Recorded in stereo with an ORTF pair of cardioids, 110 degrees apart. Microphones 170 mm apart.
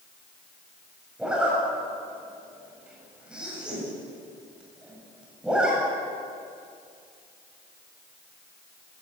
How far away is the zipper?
About 8.5 m.